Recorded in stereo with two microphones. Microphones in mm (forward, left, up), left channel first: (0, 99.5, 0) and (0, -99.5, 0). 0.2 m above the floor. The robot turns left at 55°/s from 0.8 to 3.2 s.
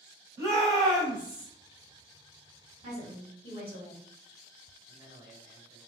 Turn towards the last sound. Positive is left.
turn(degrees=-25)  # may be behind; listen again after turning